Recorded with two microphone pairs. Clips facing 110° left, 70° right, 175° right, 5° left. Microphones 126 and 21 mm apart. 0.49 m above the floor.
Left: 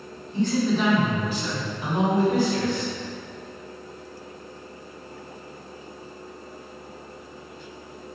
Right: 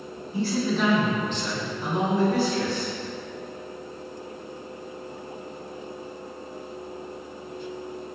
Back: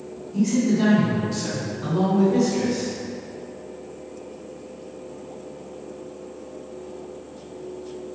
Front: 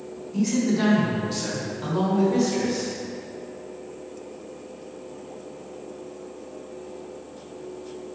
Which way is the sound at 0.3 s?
Straight ahead.